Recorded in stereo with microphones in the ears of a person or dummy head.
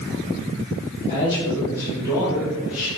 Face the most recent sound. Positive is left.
turn(degrees=0)  # may be behind; listen again after turning